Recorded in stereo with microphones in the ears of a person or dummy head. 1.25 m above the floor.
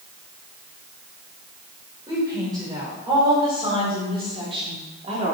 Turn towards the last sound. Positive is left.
turn(degrees=-30)  # may be behind; listen again after turning